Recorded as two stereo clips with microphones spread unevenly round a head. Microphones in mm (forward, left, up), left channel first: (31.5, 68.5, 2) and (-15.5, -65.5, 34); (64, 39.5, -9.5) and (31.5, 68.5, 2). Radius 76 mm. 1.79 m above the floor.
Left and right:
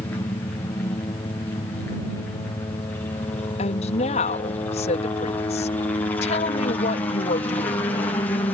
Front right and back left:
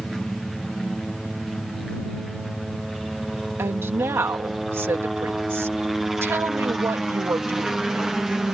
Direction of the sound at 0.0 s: 35° left.